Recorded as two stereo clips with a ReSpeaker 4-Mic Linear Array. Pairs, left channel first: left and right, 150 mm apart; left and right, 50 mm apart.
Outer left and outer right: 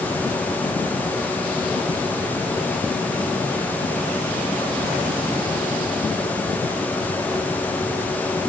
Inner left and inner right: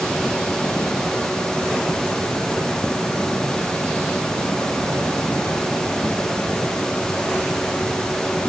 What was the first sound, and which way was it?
Only background noise.